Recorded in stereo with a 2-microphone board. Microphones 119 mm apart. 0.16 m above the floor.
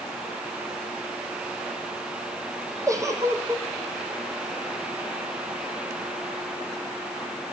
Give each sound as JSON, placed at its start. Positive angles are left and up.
{"t": 2.9, "sound": "a giggle", "side_deg": -25, "distance_m": 3.0}